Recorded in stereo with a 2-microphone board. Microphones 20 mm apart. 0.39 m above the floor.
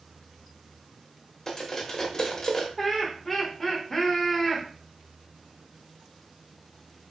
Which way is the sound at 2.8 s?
10° left (ahead or behind).